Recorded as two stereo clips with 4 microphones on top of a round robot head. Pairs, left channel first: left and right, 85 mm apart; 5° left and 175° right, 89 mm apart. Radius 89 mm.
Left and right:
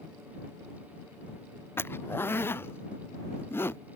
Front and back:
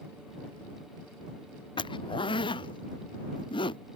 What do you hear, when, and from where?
1.8 s a zipper: 25° left